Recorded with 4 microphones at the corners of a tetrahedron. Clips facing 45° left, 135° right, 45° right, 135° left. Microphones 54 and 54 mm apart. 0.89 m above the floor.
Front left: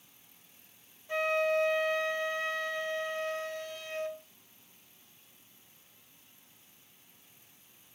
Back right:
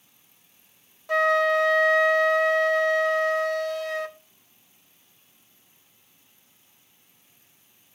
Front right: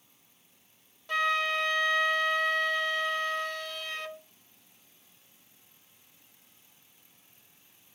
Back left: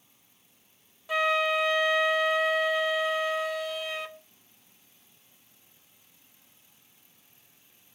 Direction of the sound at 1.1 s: 140° right.